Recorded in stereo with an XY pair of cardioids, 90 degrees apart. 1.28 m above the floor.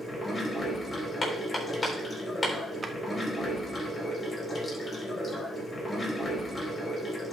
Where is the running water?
25° left, 4 m.